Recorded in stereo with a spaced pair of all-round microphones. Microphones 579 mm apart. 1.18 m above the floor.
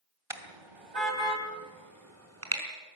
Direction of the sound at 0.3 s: 65° right (ahead or behind).